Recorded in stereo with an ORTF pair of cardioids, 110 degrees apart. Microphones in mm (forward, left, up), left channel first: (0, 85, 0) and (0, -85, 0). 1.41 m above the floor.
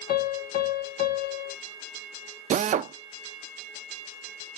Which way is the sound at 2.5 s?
50° right.